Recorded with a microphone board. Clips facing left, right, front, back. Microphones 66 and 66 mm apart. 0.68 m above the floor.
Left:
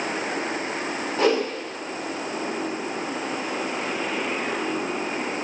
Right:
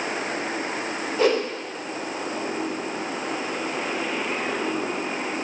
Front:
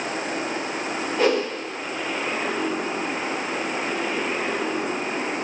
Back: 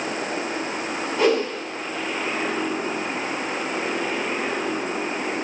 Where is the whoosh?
90° left, 3.5 m.